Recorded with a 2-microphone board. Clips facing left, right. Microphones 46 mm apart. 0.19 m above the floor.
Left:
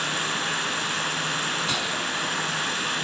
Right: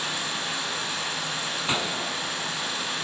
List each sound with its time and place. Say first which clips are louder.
0.0 s running water: left 3 dB; 55° left (ahead or behind), 0.9 m
1.7 s a gunshot: left 1 dB; 25° right (ahead or behind), 0.5 m